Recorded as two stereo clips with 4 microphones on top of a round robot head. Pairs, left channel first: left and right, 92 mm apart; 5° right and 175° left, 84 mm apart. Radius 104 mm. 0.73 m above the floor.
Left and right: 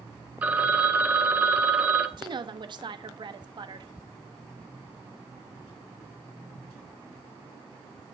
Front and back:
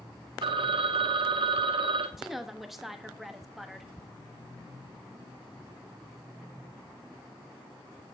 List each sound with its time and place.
0.4 s a phone ringing: 165° right, 1.1 m
2.2 s a woman speaking: 95° right, 1.2 m